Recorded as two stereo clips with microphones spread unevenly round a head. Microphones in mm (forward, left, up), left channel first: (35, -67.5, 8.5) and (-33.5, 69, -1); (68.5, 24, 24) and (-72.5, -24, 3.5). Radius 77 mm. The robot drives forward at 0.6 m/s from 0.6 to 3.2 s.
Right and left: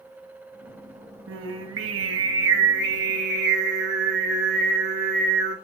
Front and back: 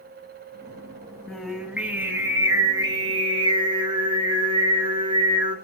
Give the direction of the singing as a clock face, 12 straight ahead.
9 o'clock.